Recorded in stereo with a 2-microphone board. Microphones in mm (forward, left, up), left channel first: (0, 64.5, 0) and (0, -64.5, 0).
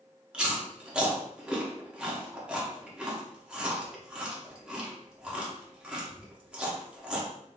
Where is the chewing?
10° right (ahead or behind), 0.8 m.